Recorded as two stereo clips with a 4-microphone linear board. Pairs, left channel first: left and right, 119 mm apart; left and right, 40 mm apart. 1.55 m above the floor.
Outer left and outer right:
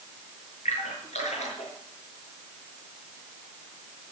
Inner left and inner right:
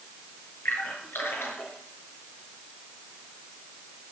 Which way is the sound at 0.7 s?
75° left (ahead or behind).